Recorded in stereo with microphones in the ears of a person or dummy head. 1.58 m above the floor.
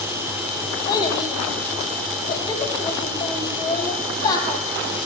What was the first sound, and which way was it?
A child speaking, 25° left (ahead or behind).